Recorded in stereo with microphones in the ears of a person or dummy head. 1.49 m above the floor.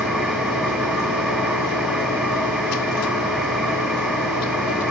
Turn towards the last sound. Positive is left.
turn(degrees=-5)  # may be behind; listen again after turning